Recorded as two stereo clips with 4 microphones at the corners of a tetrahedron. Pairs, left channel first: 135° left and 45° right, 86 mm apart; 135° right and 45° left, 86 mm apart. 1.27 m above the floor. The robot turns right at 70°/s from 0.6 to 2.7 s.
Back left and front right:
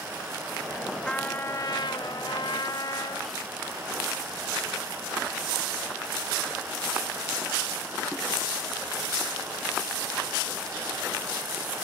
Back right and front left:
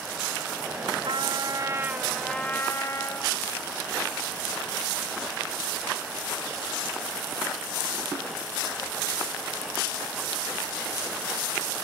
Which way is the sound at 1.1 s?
55° left.